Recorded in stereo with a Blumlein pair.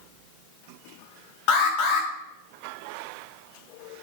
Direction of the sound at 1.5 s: 45° left.